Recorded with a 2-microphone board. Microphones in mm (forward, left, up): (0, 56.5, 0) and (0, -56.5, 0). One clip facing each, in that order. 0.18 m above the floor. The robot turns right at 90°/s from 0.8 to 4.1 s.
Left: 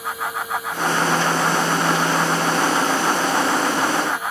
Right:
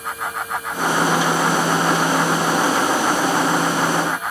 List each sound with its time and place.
Only background noise.